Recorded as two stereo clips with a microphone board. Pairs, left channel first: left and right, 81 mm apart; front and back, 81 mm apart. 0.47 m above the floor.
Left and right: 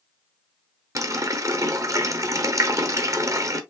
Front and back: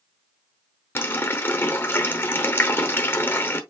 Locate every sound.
0.9 s a running tap: 55° right, 0.9 m